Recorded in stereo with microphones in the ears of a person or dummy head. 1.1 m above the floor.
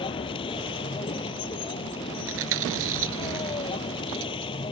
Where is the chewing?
70° right (ahead or behind).